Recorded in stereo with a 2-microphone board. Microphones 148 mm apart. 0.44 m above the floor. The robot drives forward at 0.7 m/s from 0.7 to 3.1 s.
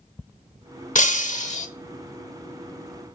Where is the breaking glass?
60° left (ahead or behind), 0.8 m; by 1.7 s 50° left (ahead or behind), 0.9 m.